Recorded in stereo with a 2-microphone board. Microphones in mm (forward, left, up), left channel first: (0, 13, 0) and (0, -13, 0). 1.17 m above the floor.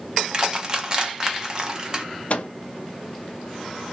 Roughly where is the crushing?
Right.